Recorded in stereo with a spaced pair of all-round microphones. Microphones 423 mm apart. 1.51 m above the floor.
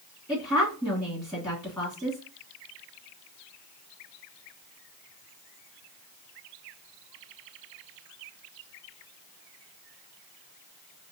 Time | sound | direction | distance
0.3 | a woman speaking | 10° left (ahead or behind) | 2 m